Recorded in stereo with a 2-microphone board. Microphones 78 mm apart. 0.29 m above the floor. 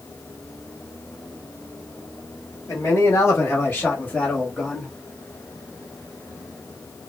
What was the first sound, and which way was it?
A man speaking, 35° left (ahead or behind).